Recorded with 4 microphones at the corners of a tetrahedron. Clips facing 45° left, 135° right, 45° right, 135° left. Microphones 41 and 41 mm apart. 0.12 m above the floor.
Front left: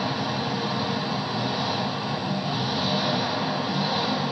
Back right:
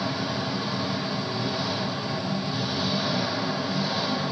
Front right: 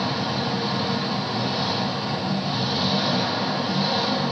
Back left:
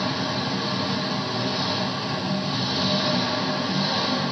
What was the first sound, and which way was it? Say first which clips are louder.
An engine running: front left 2 dB, front right 1 dB; 25° left.